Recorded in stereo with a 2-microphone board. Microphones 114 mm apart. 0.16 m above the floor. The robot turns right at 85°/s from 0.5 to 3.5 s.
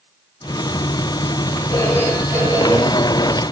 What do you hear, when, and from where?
1.7 s a phone ringing: 145° left, 7.5 m; by 3.4 s 65° right, 7.5 m